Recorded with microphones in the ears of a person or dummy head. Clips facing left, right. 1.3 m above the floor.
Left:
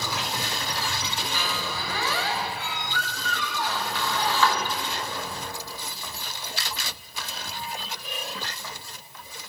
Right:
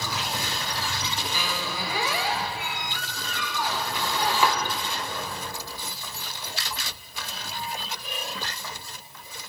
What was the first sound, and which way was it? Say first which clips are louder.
A squeak: even; 15° right (ahead or behind).